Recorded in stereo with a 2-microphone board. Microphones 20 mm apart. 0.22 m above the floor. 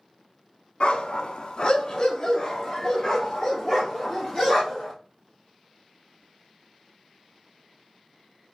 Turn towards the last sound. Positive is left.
turn(degrees=15)  # may be behind; listen again after turning